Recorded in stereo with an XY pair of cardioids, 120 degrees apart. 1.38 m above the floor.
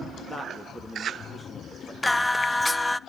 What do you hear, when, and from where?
0.3 s a man speaking: 15° left, 2 m
2.0 s singing: 10° left, 0.5 m